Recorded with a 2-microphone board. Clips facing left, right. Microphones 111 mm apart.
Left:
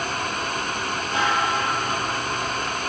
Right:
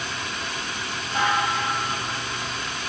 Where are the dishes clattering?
55° left (ahead or behind), 9.5 m.